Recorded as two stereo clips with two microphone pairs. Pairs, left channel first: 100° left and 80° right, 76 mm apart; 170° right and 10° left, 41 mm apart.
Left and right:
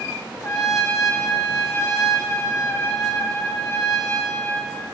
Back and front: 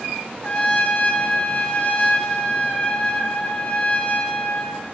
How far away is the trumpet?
About 1.1 m.